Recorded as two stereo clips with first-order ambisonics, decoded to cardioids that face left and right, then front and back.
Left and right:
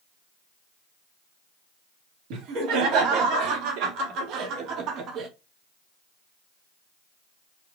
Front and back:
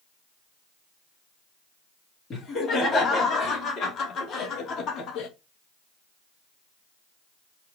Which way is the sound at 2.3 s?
65° right.